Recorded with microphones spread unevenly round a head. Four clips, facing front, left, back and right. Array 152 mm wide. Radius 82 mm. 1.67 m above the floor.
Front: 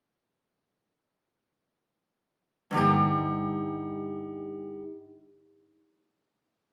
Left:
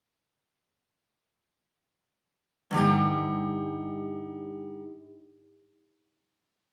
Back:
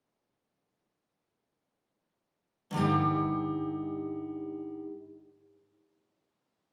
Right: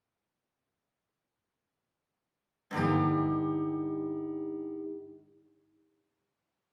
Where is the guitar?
40° left, 2.5 m.